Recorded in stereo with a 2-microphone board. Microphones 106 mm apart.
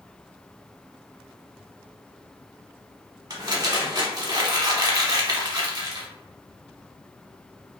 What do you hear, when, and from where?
3.3 s crumpling: 40° right (ahead or behind), 0.7 m